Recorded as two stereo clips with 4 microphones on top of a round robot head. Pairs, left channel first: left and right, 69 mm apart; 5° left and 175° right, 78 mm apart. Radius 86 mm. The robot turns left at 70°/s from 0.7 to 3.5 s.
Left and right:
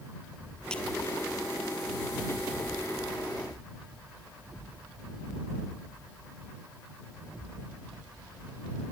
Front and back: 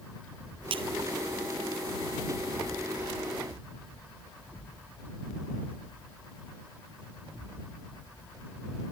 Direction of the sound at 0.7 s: 170° left.